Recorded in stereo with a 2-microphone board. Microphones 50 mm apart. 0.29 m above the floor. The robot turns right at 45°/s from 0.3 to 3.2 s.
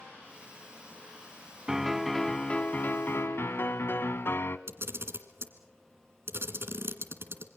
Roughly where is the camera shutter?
Right.